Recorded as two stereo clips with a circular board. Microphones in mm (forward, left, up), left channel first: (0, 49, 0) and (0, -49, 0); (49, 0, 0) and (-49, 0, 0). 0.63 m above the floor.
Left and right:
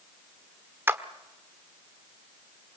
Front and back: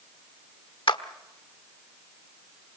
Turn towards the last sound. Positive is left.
turn(degrees=-25)